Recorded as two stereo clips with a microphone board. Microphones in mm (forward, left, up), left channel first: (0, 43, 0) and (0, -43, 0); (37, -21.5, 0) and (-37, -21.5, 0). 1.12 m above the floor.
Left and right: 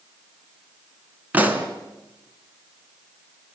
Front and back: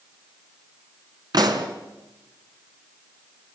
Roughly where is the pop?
Behind.